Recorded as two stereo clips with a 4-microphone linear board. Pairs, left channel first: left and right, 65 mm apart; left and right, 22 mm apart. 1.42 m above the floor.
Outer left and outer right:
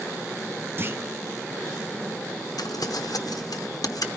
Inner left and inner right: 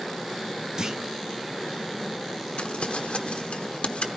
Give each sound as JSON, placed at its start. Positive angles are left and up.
{"t": 0.8, "sound": "a clunk", "side_deg": -35, "distance_m": 0.6}
{"t": 2.6, "sound": "crumpling", "side_deg": 80, "distance_m": 0.8}